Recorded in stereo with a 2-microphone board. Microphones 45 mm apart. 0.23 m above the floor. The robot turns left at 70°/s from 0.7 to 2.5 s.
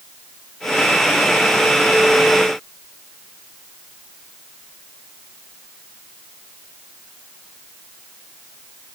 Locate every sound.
Only background noise.